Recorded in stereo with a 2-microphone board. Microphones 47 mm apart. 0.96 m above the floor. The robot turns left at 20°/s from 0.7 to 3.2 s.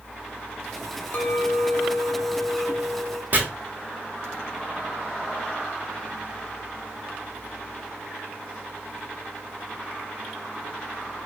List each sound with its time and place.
1.1 s a clink: 40° left, 0.6 m; by 3.2 s straight ahead, 0.6 m
3.3 s chopping: 45° right (ahead or behind), 1.2 m